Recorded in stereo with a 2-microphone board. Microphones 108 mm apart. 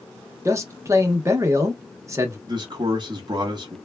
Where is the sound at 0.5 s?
30° right (ahead or behind), 0.7 m.